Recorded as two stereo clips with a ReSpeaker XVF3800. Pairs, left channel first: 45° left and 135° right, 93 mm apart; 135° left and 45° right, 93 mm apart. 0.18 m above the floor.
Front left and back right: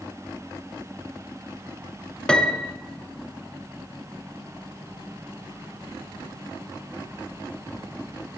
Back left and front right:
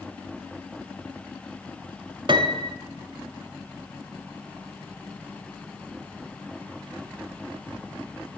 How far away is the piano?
About 1.0 m.